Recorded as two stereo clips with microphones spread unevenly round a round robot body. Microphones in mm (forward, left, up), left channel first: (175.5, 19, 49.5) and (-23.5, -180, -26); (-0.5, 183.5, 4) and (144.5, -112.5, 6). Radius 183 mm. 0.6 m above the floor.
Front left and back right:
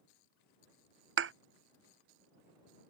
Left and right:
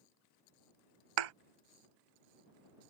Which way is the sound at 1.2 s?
80° right.